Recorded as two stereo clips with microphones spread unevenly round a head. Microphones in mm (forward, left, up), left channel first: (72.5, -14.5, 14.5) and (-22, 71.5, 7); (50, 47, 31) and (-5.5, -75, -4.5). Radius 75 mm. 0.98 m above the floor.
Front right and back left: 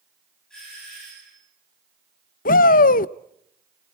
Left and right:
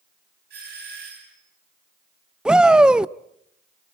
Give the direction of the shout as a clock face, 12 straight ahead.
1 o'clock.